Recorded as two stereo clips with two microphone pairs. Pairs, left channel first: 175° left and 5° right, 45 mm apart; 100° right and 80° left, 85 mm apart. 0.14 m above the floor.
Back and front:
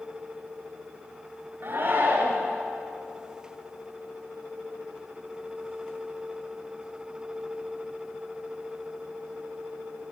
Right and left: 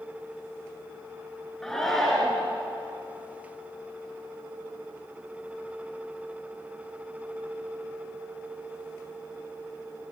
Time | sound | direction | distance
1.6 | a shout | 20° right | 2 m